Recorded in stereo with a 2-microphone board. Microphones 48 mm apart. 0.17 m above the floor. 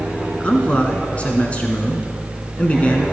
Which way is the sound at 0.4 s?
25° left (ahead or behind).